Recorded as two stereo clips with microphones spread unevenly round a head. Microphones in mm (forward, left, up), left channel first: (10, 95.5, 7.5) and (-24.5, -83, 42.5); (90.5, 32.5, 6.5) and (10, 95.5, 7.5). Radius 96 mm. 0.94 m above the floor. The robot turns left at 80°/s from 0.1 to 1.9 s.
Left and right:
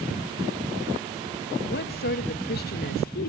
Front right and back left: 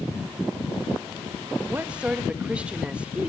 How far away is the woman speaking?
About 1.4 m.